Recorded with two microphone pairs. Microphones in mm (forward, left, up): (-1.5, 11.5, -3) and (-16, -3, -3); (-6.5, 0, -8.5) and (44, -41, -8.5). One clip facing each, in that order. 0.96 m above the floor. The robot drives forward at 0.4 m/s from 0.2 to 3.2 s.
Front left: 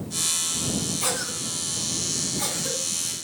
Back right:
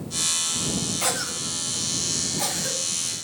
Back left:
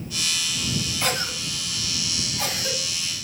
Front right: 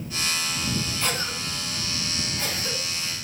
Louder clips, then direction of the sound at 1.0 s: Back right 1 dB, back left 2 dB; 175° left.